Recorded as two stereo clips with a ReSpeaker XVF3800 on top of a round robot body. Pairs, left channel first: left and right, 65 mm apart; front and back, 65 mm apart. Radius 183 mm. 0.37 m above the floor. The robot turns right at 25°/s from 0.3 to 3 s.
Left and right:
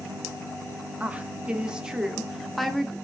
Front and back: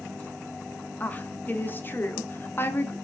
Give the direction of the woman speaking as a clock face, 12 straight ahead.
1 o'clock.